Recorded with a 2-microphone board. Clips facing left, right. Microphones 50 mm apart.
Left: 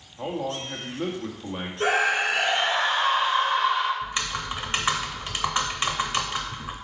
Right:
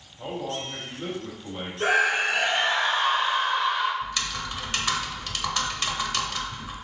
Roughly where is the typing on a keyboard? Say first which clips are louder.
Left 1 dB; left.